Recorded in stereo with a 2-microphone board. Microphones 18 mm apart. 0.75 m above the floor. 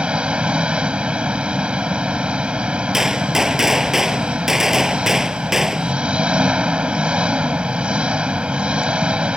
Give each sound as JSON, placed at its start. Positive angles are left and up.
{"t": 0.0, "sound": "an engine running", "side_deg": -70}
{"t": 2.9, "sound": "a gunshot", "side_deg": -20}